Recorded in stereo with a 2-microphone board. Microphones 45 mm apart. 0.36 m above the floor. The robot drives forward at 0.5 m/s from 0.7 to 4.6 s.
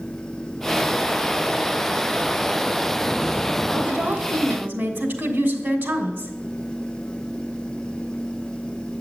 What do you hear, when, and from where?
3.7 s a woman speaking: 45° right (ahead or behind), 2.5 m; by 6.3 s 40° right (ahead or behind), 2.5 m